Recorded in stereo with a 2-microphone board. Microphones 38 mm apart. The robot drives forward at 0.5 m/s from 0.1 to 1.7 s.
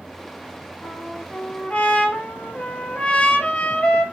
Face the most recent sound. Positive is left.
turn(degrees=40)  # may be behind; listen again after turning